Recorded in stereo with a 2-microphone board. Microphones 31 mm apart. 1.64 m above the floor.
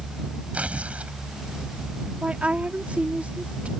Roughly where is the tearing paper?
Right.